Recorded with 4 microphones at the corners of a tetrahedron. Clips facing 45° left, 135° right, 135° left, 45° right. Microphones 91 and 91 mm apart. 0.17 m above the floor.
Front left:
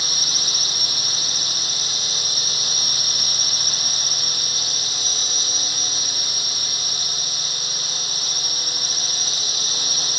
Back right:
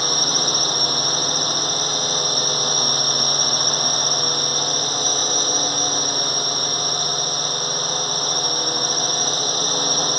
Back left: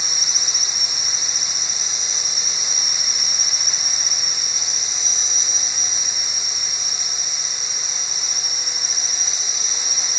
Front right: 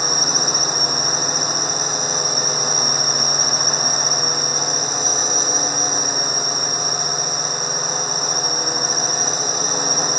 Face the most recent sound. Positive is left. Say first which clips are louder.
# back right 10 dB, front right 12 dB
turn(degrees=-90)